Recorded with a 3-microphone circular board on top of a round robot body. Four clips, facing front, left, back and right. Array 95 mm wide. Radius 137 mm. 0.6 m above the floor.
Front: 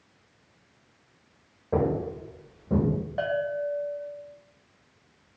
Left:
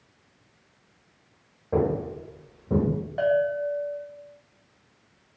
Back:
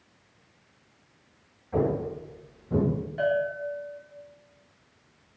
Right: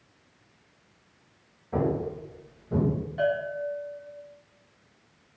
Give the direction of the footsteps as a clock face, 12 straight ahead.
11 o'clock.